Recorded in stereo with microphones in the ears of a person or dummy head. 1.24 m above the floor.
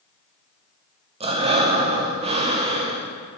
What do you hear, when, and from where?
1.2 s breathing: 35° right (ahead or behind), 0.6 m